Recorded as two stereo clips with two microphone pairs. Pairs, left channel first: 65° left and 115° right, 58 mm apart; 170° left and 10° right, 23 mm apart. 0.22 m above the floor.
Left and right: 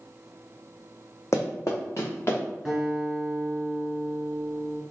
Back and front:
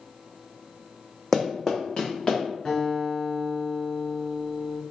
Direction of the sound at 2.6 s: 160° left.